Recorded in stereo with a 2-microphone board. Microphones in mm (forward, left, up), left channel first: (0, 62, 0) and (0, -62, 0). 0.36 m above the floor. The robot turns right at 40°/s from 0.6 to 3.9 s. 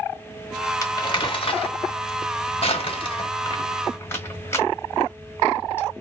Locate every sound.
0.8 s crumpling: 30° left (ahead or behind), 1.7 m; by 5.9 s 20° left (ahead or behind), 1.7 m